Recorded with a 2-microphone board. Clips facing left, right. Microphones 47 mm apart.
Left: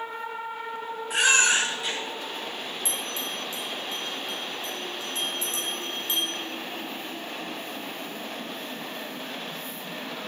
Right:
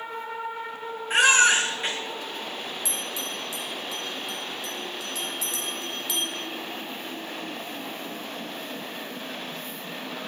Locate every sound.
1.1 s a baby crying: 45° right (ahead or behind), 5 m
2.9 s a bell: 35° left (ahead or behind), 4 m